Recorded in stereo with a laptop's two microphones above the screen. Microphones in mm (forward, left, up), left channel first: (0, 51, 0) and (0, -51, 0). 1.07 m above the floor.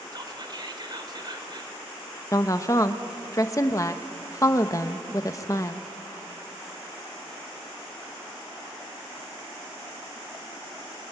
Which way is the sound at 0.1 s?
45° right (ahead or behind).